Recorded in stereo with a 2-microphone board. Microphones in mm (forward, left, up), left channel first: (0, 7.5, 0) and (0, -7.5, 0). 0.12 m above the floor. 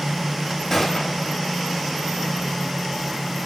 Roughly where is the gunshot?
Left.